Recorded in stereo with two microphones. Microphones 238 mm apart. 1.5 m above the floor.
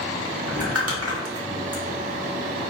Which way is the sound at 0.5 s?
65° right (ahead or behind).